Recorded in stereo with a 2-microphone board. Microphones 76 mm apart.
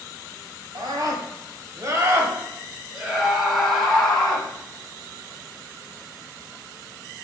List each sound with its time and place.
0.8 s a scream: 60° right (ahead or behind), 1.6 m; by 4.5 s 10° left (ahead or behind), 1.9 m